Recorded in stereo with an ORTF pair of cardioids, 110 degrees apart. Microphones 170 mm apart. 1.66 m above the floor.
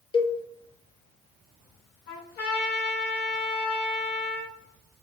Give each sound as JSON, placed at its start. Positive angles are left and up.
{"t": 0.1, "sound": "a cowbell", "azimuth_deg": 30, "distance_m": 0.6}
{"t": 2.1, "sound": "a trumpet", "azimuth_deg": 70, "distance_m": 1.6}